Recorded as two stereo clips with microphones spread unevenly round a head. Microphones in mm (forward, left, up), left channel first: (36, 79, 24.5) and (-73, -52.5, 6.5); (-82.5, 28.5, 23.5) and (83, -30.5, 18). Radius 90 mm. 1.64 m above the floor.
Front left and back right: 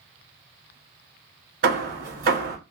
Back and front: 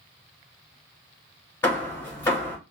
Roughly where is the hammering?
Behind right.